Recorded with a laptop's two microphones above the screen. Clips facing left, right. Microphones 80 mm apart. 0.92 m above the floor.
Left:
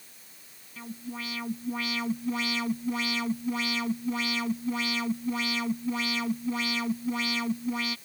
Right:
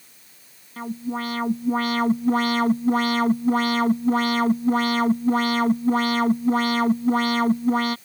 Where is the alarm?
50° right (ahead or behind).